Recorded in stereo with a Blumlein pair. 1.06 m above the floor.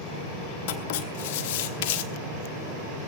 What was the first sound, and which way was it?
Writing, 50° left.